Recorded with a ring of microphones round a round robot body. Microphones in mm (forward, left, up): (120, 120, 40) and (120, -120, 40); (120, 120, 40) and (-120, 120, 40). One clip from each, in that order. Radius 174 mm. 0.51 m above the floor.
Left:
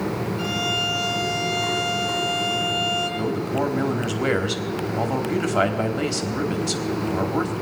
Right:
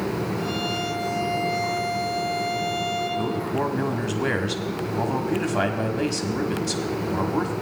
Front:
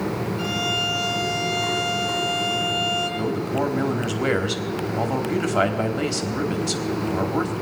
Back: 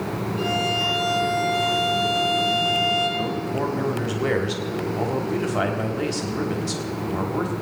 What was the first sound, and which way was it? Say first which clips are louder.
A violin: left 3 dB, back 2 dB; 140° left.